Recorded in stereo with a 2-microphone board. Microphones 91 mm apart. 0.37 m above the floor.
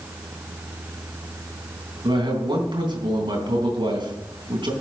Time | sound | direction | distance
2.0 | a man speaking | 65° right (ahead or behind) | 3.5 m